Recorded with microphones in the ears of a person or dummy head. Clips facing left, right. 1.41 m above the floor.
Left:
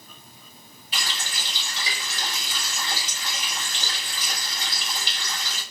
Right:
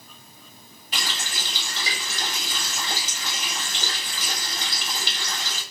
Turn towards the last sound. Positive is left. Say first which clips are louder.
# right 1 dB
turn(degrees=-50)  # may be behind; listen again after turning